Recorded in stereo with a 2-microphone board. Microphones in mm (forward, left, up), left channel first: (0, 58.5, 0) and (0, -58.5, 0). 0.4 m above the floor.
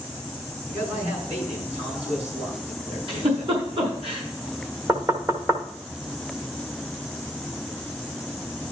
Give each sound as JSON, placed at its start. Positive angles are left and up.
{"t": 0.7, "sound": "a man speaking", "side_deg": -60, "distance_m": 5.0}
{"t": 3.1, "sound": "a giggle", "side_deg": -50, "distance_m": 3.5}
{"t": 4.9, "sound": "knocking", "side_deg": -25, "distance_m": 1.1}